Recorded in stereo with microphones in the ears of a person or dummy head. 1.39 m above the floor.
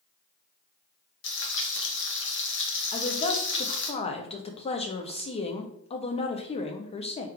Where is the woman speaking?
35° left (ahead or behind), 0.5 m.